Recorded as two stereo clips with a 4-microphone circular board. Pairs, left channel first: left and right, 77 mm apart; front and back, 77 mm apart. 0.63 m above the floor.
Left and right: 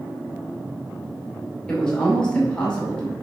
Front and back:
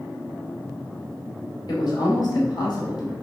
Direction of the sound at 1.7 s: 15° left.